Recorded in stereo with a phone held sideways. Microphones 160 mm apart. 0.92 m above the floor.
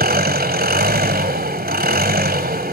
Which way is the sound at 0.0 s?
70° right (ahead or behind).